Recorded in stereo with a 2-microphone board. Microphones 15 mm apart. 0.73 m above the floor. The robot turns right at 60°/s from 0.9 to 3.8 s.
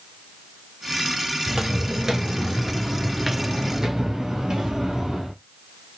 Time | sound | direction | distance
1.5 | footsteps | 45° right (ahead or behind) | 1.0 m